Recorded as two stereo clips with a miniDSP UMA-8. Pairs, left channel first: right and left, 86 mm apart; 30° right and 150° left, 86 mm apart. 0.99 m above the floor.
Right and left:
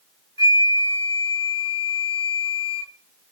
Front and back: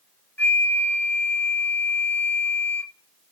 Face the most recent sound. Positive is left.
turn(degrees=-100)